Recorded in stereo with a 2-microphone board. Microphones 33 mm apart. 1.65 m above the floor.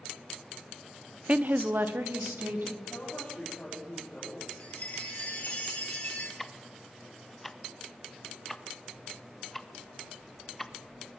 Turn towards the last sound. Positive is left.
turn(degrees=10)  # may be behind; listen again after turning